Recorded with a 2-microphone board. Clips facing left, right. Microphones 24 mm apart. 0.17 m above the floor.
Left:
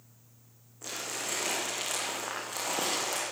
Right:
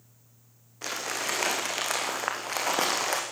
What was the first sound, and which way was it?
Crumpling, 60° right (ahead or behind).